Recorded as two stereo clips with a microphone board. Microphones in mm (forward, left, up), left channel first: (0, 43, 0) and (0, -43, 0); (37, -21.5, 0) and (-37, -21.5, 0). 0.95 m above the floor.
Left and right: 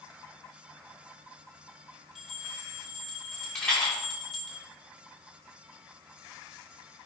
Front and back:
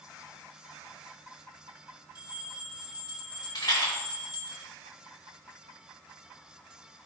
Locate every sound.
2.1 s a bell: 5° left, 2 m
3.5 s a rattle: 10° left, 2.5 m